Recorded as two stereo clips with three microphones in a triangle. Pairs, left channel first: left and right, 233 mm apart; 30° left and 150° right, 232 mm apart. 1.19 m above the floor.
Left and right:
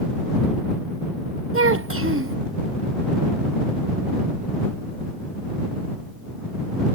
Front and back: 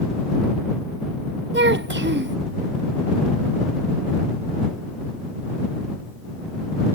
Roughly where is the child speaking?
Right.